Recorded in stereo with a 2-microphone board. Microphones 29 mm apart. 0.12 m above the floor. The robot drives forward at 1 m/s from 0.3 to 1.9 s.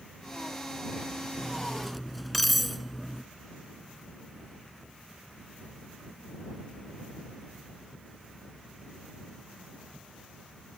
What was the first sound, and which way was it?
Cutlery clinking, centre (ahead or behind).